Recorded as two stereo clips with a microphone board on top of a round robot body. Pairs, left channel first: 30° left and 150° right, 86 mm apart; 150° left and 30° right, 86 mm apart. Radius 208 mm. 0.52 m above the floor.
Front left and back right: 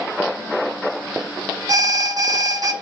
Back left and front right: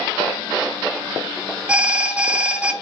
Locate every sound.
1.7 s an alarm: 105° right, 1.2 m